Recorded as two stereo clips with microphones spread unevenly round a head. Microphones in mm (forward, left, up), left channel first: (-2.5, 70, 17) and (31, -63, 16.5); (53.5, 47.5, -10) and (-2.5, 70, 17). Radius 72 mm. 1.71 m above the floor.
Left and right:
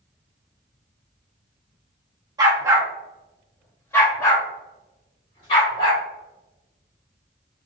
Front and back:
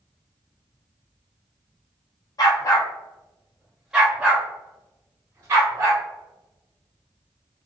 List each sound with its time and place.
2.4 s a dog barking: 40° right, 1.2 m; by 6.0 s 155° left, 2.5 m